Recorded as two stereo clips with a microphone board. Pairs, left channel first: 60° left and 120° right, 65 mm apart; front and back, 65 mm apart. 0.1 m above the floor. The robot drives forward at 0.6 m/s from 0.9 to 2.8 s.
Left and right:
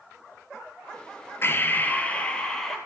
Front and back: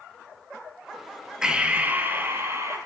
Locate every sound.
1.4 s breathing: 105° left, 1.0 m; by 2.8 s 145° left, 1.4 m